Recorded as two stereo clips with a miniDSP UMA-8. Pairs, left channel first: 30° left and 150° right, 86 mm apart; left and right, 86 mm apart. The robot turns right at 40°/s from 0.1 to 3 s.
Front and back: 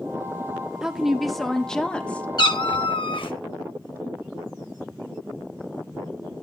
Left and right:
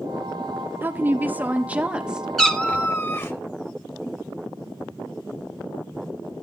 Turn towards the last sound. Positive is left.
turn(degrees=30)